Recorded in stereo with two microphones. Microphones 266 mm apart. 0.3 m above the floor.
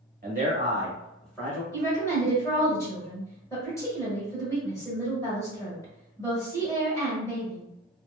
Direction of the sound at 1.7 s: 10° left (ahead or behind).